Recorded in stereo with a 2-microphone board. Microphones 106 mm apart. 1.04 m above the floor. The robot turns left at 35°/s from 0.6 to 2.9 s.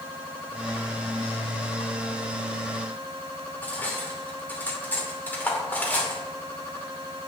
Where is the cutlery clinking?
15° left (ahead or behind), 2.5 m.